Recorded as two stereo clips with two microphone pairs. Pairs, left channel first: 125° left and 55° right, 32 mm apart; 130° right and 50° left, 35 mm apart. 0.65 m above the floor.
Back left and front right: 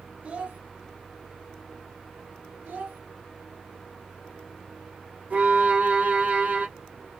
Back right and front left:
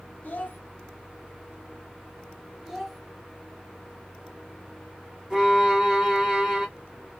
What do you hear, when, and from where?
0.2 s a child speaking: 90° right, 1.2 m
2.6 s a child speaking: 35° right, 0.9 m
5.3 s a violin: 25° right, 1.6 m